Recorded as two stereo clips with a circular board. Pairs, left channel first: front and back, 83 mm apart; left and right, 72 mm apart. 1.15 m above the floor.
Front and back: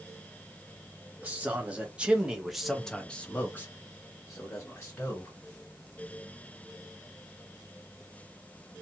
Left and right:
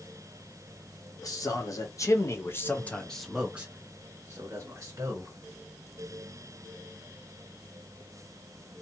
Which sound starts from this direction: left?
A man speaking, at 1.2 s.